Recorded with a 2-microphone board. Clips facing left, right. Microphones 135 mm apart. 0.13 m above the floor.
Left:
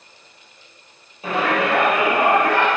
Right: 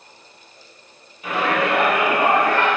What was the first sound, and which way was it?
A shout, 30° left (ahead or behind).